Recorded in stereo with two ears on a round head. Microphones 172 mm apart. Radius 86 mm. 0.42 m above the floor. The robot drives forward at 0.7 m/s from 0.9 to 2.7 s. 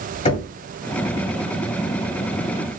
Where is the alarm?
No alarm in this recording.